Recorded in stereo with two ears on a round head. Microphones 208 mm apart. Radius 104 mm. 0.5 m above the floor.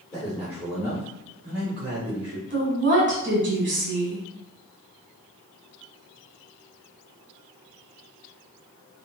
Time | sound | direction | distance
0.1 | a man speaking | centre (ahead or behind) | 1.6 m
2.5 | a woman speaking | 50° right (ahead or behind) | 1.6 m